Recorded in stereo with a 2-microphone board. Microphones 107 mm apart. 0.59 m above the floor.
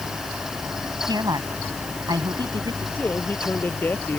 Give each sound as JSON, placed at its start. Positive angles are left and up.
{"t": 1.1, "sound": "a woman speaking", "side_deg": -40}
{"t": 3.0, "sound": "a man speaking", "side_deg": 20}